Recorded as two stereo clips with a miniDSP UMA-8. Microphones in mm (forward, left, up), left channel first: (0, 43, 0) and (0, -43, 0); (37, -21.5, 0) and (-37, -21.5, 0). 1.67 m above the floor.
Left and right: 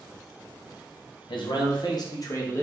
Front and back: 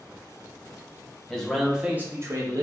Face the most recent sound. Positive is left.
turn(degrees=155)